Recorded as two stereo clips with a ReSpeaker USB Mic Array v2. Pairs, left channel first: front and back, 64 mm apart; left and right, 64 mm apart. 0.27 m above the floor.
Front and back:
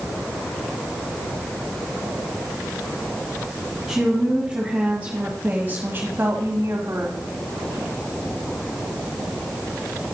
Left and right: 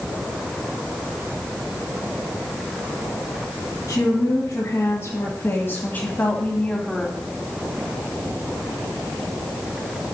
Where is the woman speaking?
100° left, 2 m; by 7.2 s 165° left, 1.7 m.